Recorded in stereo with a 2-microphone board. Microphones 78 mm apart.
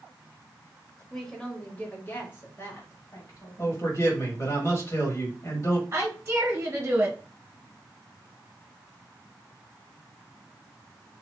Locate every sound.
1.1 s a woman speaking: 5° left (ahead or behind), 1.2 m; by 3.8 s 55° left (ahead or behind), 1.7 m
3.6 s a man speaking: 40° left (ahead or behind), 1.6 m
5.9 s a woman speaking: 35° right (ahead or behind), 1.5 m